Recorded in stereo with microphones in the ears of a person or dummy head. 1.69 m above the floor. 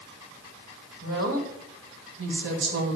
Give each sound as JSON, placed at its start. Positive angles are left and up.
{"t": 1.0, "sound": "a woman speaking", "side_deg": -75, "distance_m": 2.5}